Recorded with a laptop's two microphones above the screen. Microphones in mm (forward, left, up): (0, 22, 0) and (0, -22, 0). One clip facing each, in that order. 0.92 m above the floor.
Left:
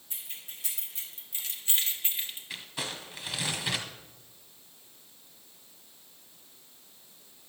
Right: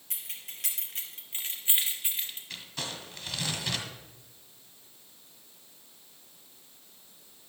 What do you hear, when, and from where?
0.1 s keys jangling: 80° right, 3 m; by 2.4 s 10° left (ahead or behind), 2.0 m
2.5 s crumpling: 15° left (ahead or behind), 1.6 m